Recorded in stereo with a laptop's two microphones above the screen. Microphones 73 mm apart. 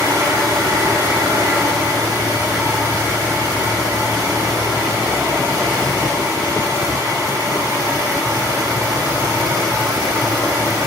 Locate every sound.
0.0 s a fan: 45° right (ahead or behind), 3.5 m